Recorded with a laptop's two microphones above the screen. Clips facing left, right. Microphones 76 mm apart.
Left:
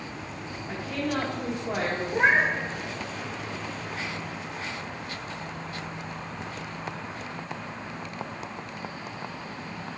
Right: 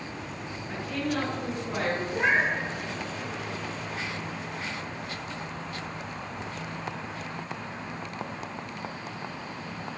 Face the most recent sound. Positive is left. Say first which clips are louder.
# left 4 dB
turn(degrees=40)  # may be behind; listen again after turning